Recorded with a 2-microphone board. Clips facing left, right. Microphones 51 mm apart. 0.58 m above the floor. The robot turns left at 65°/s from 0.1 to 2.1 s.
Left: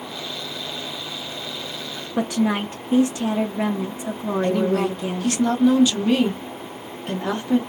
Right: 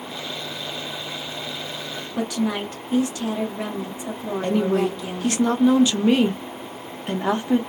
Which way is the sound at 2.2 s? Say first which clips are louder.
Left 3 dB; 30° left (ahead or behind).